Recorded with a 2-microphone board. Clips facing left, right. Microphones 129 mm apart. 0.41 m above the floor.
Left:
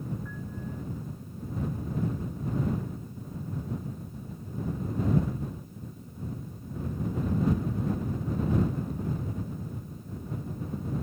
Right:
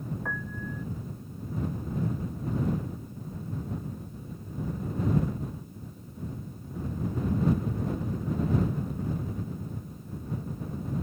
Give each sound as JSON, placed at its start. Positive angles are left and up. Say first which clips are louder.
{"t": 0.2, "sound": "a piano", "louder": "right 2 dB", "side_deg": -70}